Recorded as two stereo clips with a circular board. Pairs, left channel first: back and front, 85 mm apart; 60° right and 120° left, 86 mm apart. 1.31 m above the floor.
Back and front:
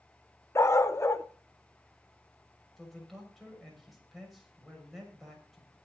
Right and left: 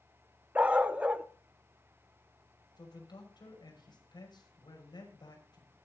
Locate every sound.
0.6 s a dog barking: straight behind, 0.8 m
2.8 s a man speaking: 90° right, 6 m